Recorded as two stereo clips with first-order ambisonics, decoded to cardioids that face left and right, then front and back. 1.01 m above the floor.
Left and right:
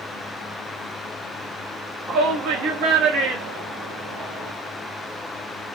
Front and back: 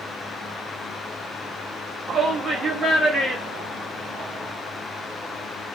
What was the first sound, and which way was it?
A shout, 130° right.